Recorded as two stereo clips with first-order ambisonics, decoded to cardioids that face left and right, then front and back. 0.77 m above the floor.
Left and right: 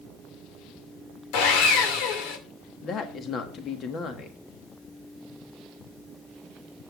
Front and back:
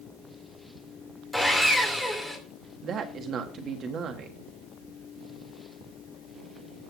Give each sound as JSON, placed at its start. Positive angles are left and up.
{"t": 1.3, "sound": "sawing", "azimuth_deg": 90, "distance_m": 2.5}
{"t": 2.8, "sound": "a woman speaking", "azimuth_deg": 135, "distance_m": 1.4}